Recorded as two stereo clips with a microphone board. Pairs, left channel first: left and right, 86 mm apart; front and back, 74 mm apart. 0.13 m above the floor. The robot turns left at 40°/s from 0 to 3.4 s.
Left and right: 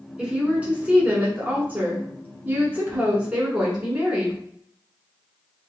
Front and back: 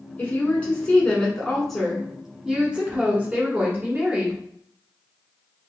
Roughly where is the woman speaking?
Ahead.